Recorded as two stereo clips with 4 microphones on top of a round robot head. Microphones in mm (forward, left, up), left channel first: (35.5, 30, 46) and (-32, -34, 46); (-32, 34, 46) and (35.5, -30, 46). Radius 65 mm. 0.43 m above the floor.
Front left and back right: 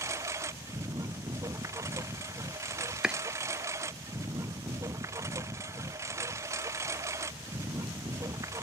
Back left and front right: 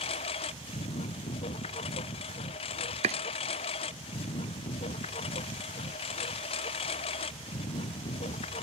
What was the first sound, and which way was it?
A lawn mower, 160° left.